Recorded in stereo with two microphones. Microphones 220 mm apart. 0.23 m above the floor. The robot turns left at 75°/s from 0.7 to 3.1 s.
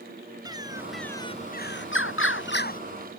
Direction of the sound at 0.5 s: 160° right.